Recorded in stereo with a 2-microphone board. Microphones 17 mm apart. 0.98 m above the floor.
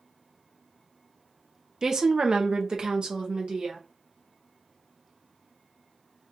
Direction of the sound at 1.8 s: 25° right (ahead or behind).